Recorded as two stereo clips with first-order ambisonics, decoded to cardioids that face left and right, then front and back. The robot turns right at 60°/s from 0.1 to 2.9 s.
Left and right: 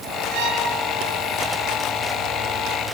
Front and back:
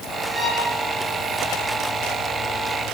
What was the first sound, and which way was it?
A violin, 110° right.